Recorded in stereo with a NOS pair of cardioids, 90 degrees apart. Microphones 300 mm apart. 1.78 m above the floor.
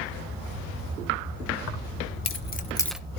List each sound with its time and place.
1.7 s keys jangling: 65° left, 2 m; by 3.0 s 5° right, 1.1 m